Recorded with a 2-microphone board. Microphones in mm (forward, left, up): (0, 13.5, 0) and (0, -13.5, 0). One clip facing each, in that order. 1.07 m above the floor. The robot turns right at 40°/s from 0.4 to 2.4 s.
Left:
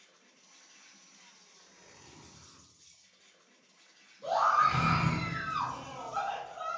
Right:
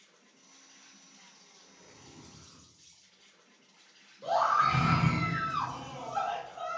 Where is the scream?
10° right (ahead or behind), 1.3 m.